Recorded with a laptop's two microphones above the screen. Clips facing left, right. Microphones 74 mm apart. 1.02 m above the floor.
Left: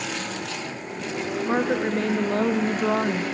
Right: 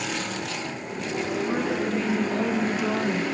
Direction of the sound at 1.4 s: 60° left (ahead or behind).